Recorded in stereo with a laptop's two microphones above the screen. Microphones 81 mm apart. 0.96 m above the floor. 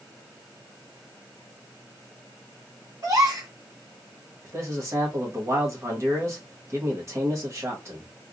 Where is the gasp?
50° right (ahead or behind), 1.8 m.